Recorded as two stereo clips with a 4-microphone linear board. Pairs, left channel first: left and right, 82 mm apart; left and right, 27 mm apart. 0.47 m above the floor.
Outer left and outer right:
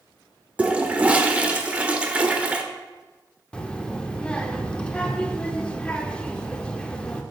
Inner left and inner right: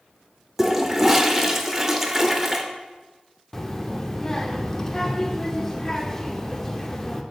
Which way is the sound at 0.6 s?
15° right (ahead or behind).